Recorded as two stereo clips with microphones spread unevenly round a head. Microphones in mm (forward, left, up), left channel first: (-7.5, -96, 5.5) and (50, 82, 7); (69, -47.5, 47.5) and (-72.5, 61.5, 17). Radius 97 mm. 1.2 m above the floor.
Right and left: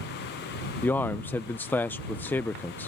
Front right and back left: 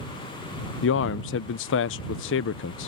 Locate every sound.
0.8 s a man speaking: 30° right